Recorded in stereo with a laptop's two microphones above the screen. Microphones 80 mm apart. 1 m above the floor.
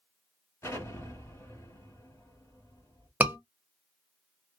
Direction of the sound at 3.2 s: 25° right (ahead or behind).